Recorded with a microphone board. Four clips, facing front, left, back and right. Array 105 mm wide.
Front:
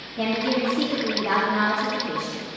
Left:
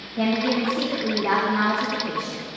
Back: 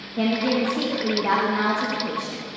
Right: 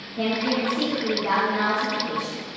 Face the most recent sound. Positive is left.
turn(degrees=160)